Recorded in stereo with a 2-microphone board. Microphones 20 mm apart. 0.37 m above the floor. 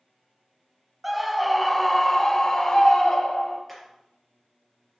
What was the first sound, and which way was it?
A scream, 10° right (ahead or behind).